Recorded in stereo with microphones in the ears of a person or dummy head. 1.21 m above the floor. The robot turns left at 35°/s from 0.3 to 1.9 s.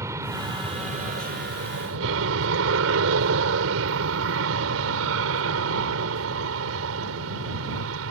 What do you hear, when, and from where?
0.0 s an aircraft: 15° right (ahead or behind); by 8.1 s 75° right (ahead or behind)